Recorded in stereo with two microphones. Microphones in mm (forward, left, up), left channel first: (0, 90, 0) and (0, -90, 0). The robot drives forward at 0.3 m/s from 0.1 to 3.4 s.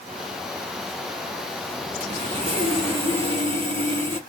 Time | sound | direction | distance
2.0 | sawing | 35° right (ahead or behind) | 1.3 m